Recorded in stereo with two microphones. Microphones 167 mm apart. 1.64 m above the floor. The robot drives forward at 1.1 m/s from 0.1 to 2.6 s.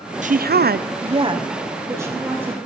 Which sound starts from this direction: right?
A woman speaking, at 0.2 s.